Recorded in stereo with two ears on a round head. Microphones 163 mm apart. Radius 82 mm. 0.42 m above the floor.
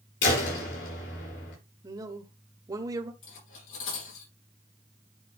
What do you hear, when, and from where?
0.2 s a door slam: 75° left (ahead or behind), 6.5 m
1.8 s a man speaking: 20° right (ahead or behind), 1.2 m
3.2 s cutlery clinking: 85° left, 7.5 m